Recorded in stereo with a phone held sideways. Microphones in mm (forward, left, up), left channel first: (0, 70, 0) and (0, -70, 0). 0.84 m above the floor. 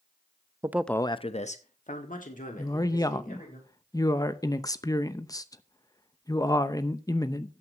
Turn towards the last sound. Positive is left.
turn(degrees=25)  # may be behind; listen again after turning